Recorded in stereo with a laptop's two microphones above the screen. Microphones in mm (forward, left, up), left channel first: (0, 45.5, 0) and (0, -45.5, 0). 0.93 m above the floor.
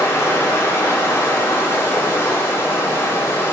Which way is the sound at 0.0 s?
30° left (ahead or behind).